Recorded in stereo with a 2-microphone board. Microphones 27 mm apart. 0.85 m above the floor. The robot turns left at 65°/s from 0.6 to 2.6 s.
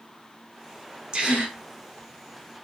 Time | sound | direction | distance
1.1 | a gasp | 40° right (ahead or behind) | 3.5 m